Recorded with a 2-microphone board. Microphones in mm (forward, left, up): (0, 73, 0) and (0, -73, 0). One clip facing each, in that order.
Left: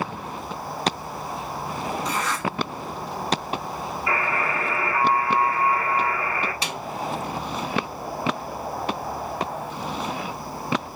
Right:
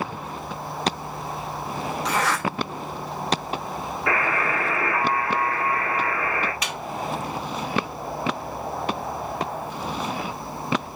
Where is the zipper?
80° right, 1.9 m.